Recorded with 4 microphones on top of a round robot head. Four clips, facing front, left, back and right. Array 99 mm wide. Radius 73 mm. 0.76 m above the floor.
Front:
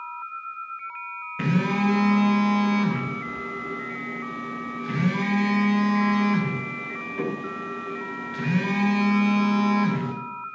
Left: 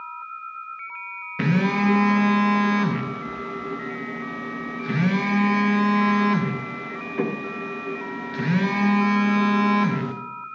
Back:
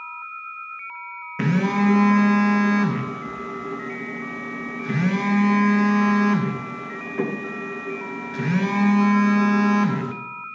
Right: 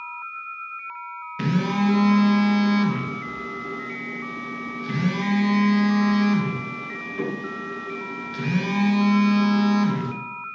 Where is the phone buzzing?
125° left, 0.8 m.